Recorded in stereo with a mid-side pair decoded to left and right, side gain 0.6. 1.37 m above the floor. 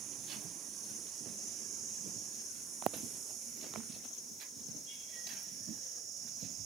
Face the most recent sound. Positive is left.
No sound to turn to.